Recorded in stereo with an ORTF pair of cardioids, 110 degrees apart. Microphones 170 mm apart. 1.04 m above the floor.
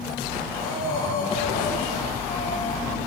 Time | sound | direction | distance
0.5 | breathing | 60° left | 3 m